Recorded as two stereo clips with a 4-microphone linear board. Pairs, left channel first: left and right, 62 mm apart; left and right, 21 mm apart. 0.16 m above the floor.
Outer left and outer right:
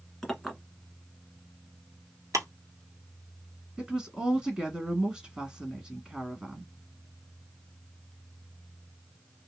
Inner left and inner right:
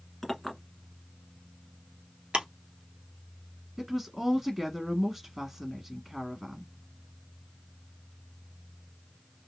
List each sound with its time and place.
0.2 s a clink: 5° left (ahead or behind), 1.1 m
2.3 s ticking: 65° right (ahead or behind), 1.1 m
3.8 s a woman speaking: 10° right (ahead or behind), 1.4 m